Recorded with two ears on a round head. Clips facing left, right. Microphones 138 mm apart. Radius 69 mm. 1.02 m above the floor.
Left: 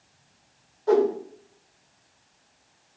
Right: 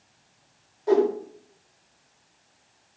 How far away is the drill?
I don't hear a drill.